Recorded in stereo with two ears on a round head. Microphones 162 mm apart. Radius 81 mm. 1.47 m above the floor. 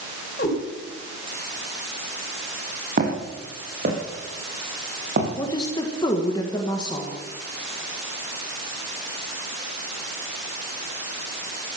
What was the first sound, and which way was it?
A cat meowing, 45° left (ahead or behind).